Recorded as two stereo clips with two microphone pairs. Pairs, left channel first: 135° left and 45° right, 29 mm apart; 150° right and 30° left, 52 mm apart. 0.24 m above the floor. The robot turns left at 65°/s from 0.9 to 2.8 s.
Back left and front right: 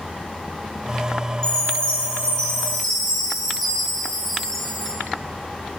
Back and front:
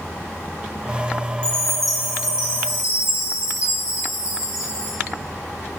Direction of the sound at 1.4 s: 155° left.